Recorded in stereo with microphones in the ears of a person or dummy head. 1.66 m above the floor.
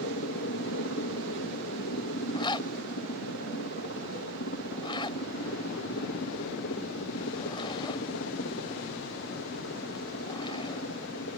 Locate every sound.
0.0 s a helicopter: 60° left (ahead or behind)
2.3 s a zipper: 25° left (ahead or behind)